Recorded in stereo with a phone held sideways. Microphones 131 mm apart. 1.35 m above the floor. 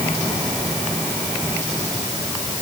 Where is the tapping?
I don't hear tapping.